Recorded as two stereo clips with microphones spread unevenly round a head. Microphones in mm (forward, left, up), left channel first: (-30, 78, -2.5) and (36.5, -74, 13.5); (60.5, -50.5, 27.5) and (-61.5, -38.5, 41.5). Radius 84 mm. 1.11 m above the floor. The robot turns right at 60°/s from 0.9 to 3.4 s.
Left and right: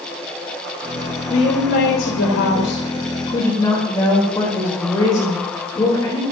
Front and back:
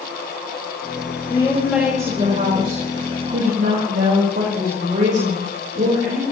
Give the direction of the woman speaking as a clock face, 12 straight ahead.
10 o'clock.